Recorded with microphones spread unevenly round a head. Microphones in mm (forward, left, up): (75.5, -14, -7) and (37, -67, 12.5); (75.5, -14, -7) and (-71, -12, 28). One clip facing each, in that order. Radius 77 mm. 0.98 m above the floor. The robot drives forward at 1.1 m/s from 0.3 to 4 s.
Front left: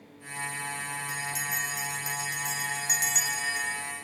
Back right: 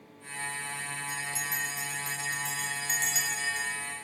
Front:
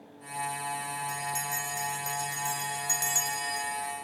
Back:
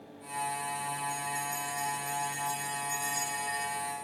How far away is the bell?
About 4.5 m.